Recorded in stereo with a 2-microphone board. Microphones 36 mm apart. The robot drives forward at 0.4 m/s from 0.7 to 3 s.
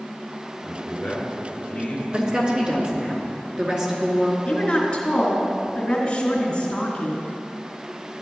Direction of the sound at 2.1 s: 30° right (ahead or behind).